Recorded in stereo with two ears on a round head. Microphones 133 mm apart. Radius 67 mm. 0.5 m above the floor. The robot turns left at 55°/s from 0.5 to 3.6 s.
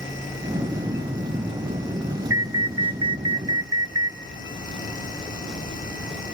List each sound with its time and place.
2.3 s an alarm: 20° right (ahead or behind), 0.5 m; by 4.2 s 25° right (ahead or behind), 0.5 m